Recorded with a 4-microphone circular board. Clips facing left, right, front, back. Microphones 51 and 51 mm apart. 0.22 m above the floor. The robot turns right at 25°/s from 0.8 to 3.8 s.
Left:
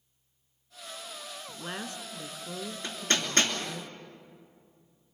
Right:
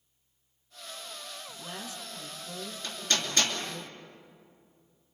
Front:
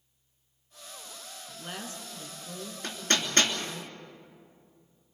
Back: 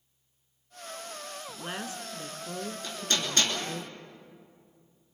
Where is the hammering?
35° left, 3 m; by 3.5 s 50° left, 3 m.